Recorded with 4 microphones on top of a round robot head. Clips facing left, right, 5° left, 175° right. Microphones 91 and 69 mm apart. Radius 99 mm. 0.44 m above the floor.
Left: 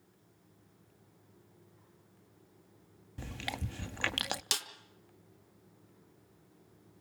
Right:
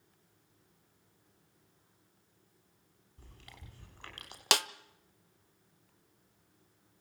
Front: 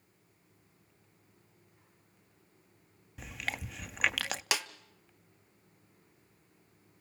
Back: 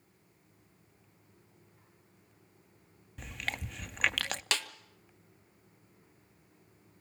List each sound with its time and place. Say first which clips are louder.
3.2 s chewing: left 16 dB, even; 90° left, 0.5 m
4.5 s a snare drum: right 11 dB, front 1 dB; 75° right, 1.0 m